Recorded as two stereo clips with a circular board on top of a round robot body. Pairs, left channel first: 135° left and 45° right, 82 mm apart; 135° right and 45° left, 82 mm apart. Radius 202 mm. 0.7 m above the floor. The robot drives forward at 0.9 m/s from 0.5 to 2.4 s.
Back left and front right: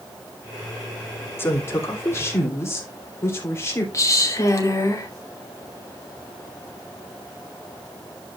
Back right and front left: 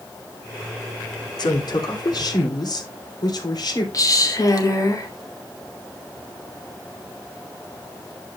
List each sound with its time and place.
1.4 s a woman speaking: 165° right, 2.5 m; by 3.8 s 170° right, 3 m
3.9 s a woman speaking: 175° right, 2.5 m